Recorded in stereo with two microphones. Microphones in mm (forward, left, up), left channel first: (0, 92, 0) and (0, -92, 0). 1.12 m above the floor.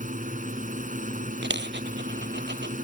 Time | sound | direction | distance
0.0 | a drone | 45° right (ahead or behind) | ?
1.4 | a dropped coin | 75° right (ahead or behind) | ?